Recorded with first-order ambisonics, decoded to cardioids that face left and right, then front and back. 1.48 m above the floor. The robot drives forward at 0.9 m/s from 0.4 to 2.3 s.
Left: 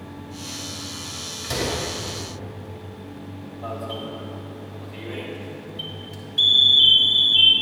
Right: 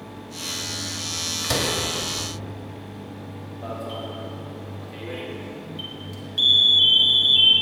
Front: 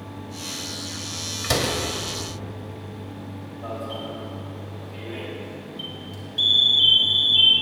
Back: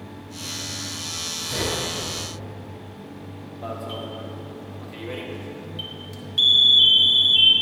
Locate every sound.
1.4 s a door slam: 35° right, 2.5 m; by 1.8 s 40° right, 2 m
3.6 s an alarm: 155° right, 2 m